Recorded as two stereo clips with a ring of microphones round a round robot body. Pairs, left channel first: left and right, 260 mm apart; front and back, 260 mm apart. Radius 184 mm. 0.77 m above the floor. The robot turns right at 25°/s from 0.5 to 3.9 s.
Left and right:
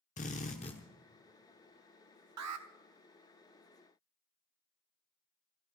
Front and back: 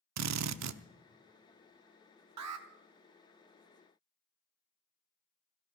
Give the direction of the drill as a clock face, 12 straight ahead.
7 o'clock.